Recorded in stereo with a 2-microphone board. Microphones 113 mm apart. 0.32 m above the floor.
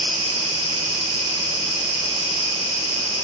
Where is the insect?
50° left (ahead or behind), 5 m.